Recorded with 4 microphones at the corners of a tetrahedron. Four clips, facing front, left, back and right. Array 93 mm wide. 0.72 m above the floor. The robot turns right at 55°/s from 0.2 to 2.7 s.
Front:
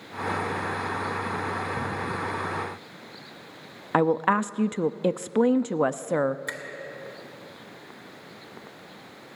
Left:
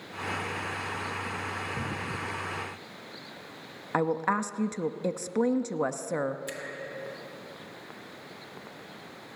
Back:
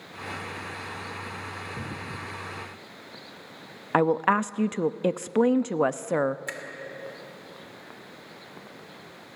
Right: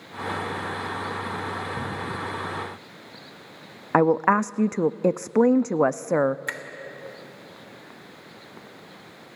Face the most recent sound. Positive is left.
turn(degrees=-75)